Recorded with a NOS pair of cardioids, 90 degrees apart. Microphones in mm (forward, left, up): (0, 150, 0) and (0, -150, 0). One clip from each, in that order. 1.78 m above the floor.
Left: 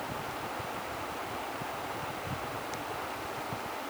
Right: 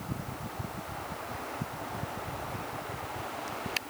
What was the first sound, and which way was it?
Only background noise.